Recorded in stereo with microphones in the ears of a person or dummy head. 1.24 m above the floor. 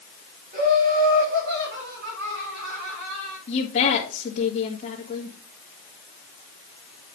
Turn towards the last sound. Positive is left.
turn(degrees=40)  # may be behind; listen again after turning